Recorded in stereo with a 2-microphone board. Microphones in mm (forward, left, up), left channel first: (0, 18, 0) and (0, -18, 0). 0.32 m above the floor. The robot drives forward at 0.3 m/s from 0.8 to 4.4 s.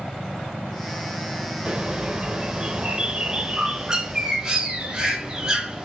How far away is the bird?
About 0.7 m.